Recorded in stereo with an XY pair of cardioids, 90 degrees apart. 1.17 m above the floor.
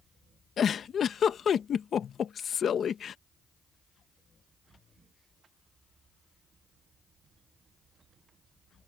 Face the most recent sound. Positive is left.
turn(degrees=60)